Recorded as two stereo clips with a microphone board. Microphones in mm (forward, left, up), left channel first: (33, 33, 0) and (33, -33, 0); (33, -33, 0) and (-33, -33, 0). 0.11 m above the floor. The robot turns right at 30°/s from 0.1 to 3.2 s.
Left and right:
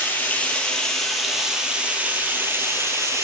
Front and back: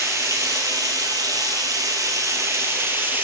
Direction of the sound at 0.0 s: 145° left.